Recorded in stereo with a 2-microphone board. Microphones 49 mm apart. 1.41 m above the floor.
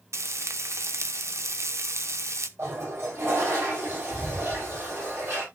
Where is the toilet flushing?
55° right (ahead or behind), 8 m.